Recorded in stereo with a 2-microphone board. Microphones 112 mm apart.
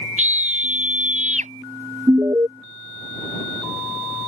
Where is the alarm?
30° right (ahead or behind).